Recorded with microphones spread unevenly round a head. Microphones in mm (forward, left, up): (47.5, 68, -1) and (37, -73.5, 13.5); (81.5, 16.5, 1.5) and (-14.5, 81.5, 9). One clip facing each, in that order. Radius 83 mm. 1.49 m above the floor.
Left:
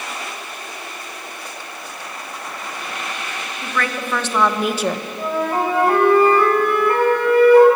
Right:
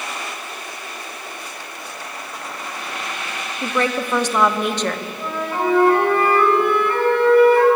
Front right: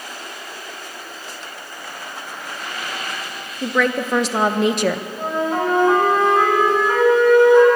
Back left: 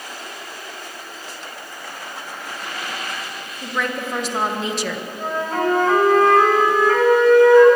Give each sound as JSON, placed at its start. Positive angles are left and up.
{"t": 3.6, "sound": "a woman speaking", "azimuth_deg": -35, "distance_m": 2.5}
{"t": 5.2, "sound": "a flute", "azimuth_deg": 35, "distance_m": 9.0}